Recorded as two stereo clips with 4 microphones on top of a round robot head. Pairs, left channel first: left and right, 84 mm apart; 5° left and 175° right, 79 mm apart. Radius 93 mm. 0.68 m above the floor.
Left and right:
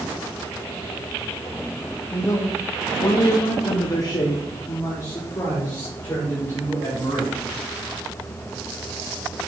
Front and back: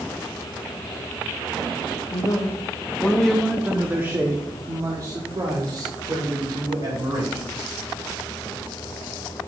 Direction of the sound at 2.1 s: 35° left.